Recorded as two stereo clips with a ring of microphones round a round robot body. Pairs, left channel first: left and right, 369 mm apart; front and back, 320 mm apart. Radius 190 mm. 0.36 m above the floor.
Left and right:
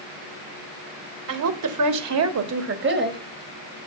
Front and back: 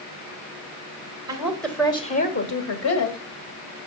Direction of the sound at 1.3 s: 105° right.